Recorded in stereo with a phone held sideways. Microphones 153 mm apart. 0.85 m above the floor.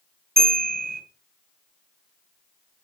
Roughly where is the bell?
Right.